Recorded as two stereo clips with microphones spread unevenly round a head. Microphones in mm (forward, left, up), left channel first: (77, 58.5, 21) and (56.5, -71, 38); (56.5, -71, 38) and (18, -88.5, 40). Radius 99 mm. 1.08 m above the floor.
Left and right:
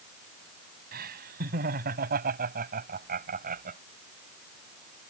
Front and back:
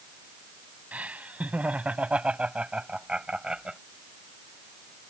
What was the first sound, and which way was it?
Laughter, 100° right.